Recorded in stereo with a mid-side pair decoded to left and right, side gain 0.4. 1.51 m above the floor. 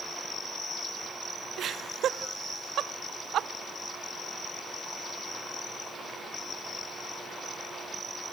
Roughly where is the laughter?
Right.